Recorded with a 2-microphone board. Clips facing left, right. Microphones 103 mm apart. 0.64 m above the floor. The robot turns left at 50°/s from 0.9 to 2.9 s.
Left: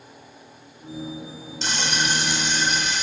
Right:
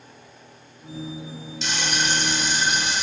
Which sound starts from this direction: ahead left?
Frying, at 1.6 s.